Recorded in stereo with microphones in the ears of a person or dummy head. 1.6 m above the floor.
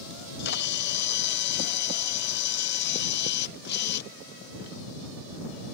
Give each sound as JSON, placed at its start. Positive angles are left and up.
{"t": 0.1, "sound": "a camera shutter", "side_deg": 50}